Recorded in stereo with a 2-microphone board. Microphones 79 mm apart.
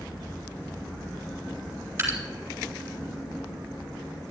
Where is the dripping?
30° right (ahead or behind), 4.5 m.